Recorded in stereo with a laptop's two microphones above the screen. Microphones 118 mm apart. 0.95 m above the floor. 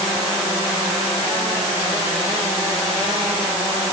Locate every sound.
Only background noise.